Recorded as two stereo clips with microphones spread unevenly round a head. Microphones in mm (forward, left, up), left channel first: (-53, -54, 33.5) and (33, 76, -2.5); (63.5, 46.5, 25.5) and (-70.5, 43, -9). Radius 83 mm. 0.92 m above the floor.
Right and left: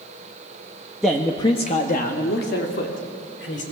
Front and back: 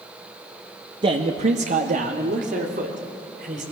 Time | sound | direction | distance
1.0 | a man speaking | 140° left | 1.2 m